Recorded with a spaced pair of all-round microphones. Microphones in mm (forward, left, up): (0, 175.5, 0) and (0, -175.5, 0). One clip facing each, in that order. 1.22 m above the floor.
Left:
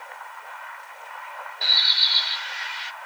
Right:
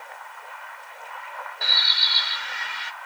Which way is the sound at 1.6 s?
60° right (ahead or behind).